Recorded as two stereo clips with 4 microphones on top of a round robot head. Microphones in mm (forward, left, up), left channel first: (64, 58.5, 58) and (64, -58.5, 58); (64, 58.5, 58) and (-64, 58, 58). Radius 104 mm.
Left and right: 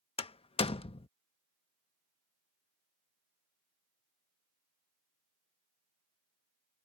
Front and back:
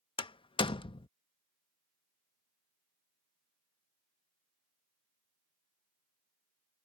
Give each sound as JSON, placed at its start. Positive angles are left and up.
{"t": 0.2, "sound": "a door slam", "azimuth_deg": 50}